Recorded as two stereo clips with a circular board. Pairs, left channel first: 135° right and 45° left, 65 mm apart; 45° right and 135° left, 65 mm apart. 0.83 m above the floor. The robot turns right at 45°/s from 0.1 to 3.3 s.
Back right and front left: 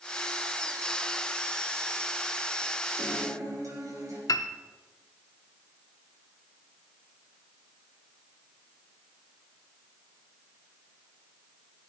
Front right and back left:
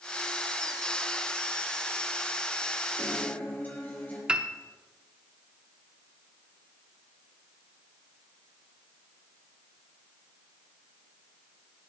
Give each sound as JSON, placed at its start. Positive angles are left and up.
{"t": 3.0, "sound": "a guitar", "azimuth_deg": 0, "distance_m": 4.0}
{"t": 4.3, "sound": "a piano", "azimuth_deg": -150, "distance_m": 0.6}